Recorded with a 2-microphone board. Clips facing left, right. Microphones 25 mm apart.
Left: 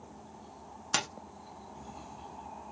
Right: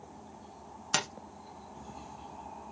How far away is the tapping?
About 1.1 m.